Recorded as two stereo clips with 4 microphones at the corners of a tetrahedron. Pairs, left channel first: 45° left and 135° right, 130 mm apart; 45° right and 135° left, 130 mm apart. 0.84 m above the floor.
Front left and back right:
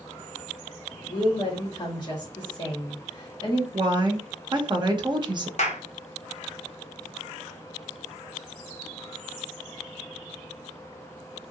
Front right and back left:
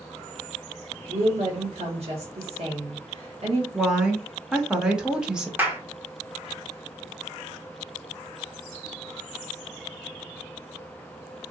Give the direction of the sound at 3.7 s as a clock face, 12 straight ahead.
5 o'clock.